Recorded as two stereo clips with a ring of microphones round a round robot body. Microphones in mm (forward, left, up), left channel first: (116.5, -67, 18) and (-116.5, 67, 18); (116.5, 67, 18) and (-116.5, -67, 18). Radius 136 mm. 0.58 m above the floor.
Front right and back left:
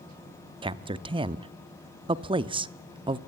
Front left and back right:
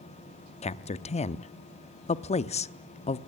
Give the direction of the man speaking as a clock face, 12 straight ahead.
9 o'clock.